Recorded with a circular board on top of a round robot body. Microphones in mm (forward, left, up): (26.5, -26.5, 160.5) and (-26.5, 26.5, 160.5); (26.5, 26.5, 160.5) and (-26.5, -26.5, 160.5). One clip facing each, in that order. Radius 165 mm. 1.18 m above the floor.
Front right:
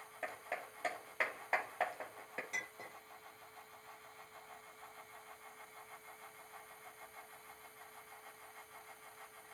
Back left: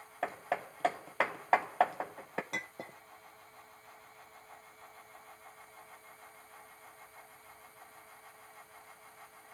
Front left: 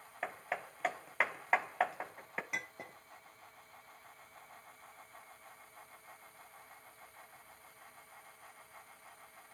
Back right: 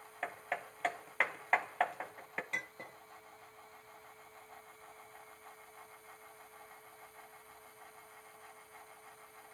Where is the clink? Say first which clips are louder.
Back left 4 dB, even; 125° left, 1.3 m.